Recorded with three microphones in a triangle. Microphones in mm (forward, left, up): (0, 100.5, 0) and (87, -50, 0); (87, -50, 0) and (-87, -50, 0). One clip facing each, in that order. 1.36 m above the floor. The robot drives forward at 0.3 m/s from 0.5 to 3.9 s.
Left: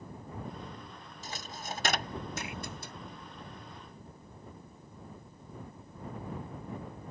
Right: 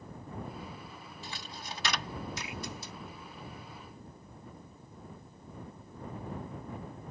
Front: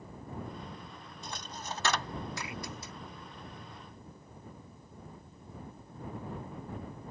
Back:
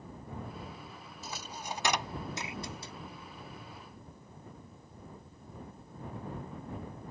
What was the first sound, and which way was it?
A dropped coin, 95° left.